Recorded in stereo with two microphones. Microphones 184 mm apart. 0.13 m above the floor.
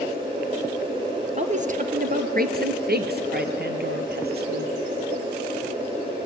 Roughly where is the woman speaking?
Right.